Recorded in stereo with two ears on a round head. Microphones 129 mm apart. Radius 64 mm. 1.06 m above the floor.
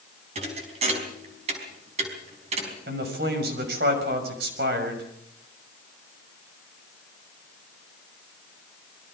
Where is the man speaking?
80° right, 6 m.